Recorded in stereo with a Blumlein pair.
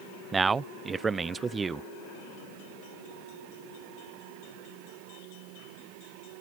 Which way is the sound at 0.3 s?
15° right.